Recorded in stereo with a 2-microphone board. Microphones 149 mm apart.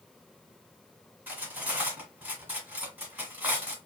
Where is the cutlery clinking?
15° right (ahead or behind), 1.2 m.